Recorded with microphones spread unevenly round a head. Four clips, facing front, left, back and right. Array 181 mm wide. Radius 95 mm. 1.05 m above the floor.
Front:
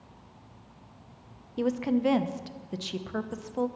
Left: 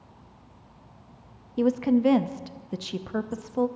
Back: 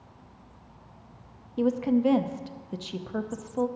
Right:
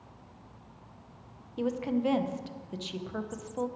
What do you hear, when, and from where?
1.6 s a woman speaking: 95° left, 0.8 m